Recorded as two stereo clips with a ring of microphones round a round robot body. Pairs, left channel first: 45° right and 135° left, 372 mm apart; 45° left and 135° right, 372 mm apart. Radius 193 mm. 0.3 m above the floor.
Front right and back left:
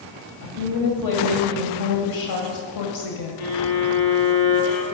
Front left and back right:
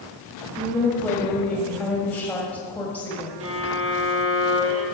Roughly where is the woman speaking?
Ahead right.